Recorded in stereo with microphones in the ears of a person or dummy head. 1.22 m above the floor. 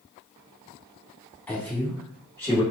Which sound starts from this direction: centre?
A man speaking, at 1.5 s.